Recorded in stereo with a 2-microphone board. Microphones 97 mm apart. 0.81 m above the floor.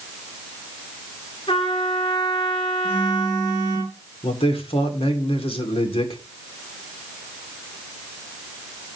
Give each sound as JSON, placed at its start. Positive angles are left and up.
{"t": 1.5, "sound": "a trumpet", "side_deg": 65, "distance_m": 2.0}
{"t": 2.8, "sound": "a phone buzzing", "side_deg": 25, "distance_m": 10.0}
{"t": 4.2, "sound": "a man speaking", "side_deg": 70, "distance_m": 2.5}